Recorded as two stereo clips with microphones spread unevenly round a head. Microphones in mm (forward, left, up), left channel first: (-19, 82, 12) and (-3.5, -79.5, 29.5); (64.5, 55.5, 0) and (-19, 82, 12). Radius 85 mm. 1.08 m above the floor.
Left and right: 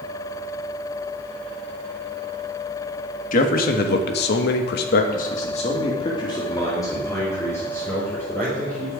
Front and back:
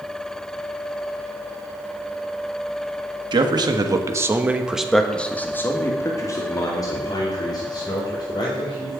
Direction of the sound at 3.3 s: 130° left.